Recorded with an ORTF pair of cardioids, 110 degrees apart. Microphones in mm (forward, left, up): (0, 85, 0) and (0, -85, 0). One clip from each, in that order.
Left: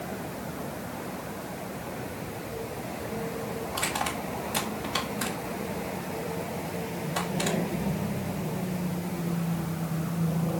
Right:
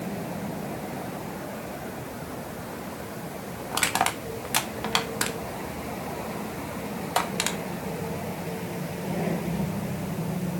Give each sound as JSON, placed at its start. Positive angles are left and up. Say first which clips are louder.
{"t": 3.7, "sound": "crushing", "louder": "right 6 dB", "azimuth_deg": -65, "distance_m": 1.6}